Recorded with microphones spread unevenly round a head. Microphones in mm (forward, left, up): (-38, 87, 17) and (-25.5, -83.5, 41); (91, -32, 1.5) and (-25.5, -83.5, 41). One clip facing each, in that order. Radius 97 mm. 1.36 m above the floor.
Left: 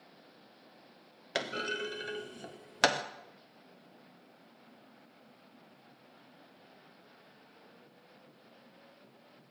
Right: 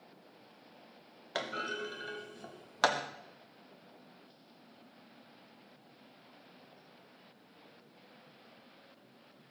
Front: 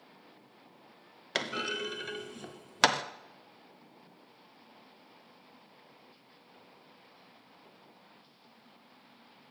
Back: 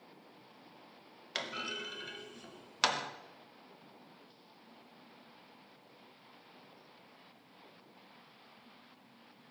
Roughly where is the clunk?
Ahead left.